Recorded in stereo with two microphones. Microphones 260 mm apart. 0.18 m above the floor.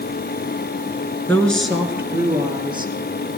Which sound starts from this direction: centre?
A woman speaking, at 1.3 s.